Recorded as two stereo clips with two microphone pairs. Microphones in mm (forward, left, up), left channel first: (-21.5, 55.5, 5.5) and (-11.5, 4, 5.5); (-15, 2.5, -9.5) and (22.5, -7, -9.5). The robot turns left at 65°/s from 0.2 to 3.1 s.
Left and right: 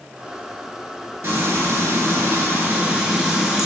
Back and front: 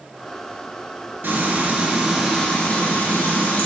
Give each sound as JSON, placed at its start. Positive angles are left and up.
{"t": 1.2, "sound": "frying", "azimuth_deg": -40, "distance_m": 0.6}